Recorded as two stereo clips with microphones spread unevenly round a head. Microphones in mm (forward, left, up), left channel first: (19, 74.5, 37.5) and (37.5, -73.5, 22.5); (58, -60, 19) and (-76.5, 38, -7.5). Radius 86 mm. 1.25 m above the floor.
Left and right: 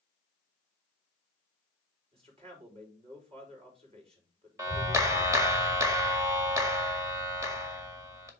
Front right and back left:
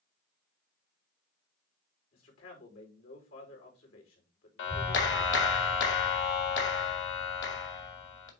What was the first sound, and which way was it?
A man speaking, 30° right.